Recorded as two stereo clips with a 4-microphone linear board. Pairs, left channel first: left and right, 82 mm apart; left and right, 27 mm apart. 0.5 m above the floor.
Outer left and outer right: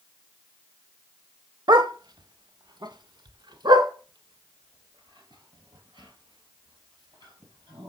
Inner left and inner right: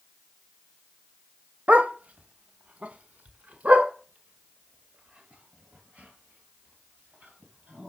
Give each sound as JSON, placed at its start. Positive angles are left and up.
{"t": 1.7, "sound": "a dog barking", "side_deg": -65, "distance_m": 0.6}